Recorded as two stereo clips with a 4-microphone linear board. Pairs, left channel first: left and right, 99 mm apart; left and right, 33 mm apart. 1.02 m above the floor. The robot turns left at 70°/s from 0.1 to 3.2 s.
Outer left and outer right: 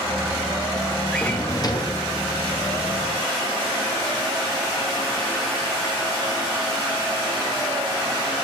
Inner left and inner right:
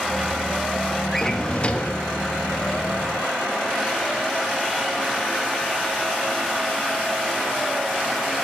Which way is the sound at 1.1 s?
175° left.